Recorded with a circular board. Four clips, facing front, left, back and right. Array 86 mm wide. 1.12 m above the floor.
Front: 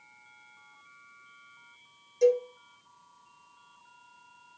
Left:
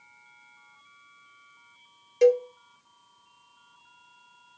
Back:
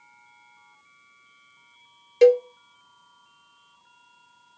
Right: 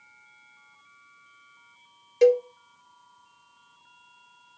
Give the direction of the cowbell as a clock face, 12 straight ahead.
6 o'clock.